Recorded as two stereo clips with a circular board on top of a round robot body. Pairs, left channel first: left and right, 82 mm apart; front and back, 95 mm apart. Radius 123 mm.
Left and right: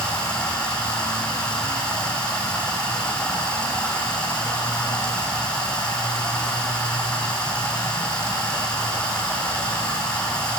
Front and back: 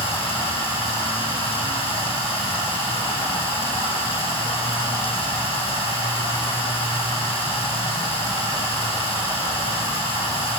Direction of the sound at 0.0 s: 10° left.